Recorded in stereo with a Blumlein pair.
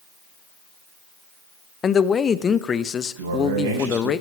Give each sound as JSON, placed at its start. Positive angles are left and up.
{"t": 1.8, "sound": "a man speaking", "azimuth_deg": 20, "distance_m": 0.8}
{"t": 3.2, "sound": "a man speaking", "azimuth_deg": -60, "distance_m": 6.0}